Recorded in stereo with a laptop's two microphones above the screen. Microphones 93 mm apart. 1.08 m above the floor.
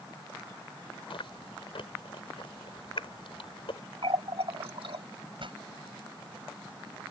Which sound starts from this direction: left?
Chewing, at 1.1 s.